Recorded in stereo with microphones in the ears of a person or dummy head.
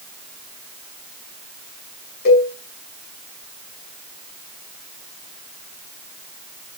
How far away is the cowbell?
About 5.5 m.